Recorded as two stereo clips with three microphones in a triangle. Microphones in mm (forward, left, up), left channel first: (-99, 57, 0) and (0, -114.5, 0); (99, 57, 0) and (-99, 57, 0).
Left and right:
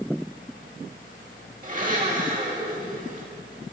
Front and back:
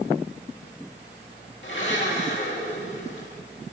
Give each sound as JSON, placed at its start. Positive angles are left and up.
{"t": 1.6, "sound": "a blender", "azimuth_deg": -15, "distance_m": 2.5}